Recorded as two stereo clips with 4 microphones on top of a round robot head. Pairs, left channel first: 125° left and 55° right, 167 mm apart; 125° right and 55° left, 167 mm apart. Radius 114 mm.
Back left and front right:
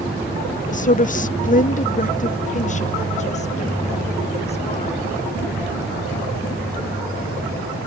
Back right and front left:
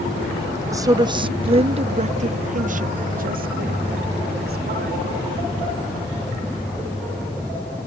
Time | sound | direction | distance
0.7 | a woman speaking | 120° left | ?